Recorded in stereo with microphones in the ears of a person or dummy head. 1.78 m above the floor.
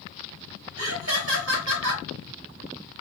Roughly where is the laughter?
Right.